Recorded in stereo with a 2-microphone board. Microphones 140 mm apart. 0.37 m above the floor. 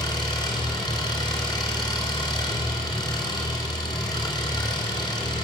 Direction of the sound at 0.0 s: 30° left (ahead or behind).